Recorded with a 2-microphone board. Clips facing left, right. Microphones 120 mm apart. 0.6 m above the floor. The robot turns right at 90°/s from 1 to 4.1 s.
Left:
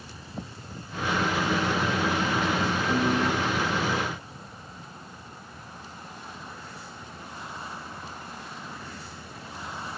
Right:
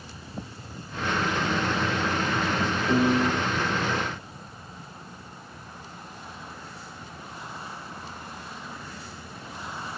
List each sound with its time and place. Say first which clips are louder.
2.9 s a piano: right 4 dB; 60° right, 1.0 m; by 3.3 s 25° right, 1.0 m